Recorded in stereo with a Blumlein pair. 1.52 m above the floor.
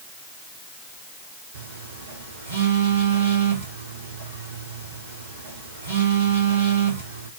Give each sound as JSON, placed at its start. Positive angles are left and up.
{"t": 1.5, "sound": "a phone buzzing", "azimuth_deg": -60, "distance_m": 2.5}